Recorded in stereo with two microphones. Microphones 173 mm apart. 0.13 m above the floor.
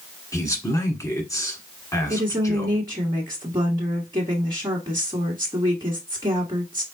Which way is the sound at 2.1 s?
30° right (ahead or behind).